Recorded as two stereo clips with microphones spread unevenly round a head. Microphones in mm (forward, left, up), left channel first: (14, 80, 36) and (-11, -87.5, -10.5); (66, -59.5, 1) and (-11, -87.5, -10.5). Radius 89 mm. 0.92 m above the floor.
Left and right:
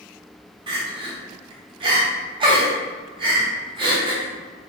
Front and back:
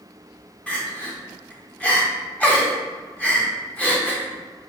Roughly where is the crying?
Ahead right.